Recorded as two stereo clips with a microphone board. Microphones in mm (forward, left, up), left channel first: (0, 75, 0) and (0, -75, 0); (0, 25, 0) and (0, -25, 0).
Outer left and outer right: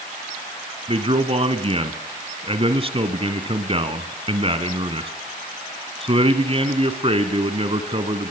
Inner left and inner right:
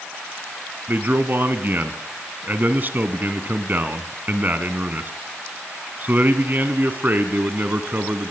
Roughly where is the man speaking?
Right.